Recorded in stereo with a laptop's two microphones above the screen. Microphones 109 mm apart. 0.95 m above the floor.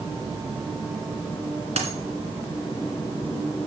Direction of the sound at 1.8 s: 75° right (ahead or behind).